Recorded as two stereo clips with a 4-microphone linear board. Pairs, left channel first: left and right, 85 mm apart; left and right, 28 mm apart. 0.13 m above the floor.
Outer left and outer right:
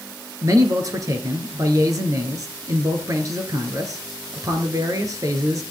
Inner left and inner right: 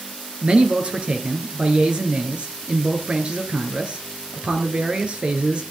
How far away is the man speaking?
About 2 m.